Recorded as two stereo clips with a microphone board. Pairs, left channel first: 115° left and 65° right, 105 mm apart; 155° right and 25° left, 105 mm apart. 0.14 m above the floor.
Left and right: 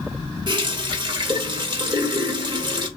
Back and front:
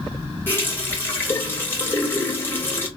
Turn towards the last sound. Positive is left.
turn(degrees=-95)